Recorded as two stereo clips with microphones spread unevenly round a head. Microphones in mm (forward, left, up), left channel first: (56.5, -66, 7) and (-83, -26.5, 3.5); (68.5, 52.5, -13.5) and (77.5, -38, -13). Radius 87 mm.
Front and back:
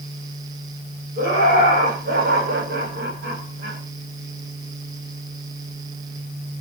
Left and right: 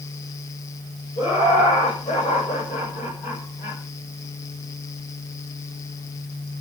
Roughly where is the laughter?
Behind.